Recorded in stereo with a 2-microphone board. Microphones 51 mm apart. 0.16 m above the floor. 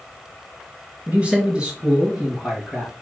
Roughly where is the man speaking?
Right.